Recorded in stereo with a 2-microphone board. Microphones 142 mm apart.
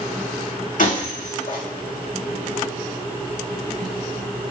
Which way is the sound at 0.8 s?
65° left (ahead or behind).